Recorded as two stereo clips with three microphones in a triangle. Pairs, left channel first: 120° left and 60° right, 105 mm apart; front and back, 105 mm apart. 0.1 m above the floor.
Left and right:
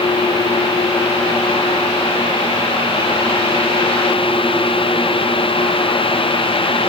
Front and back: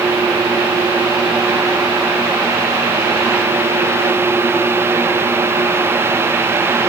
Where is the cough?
I don't hear a cough.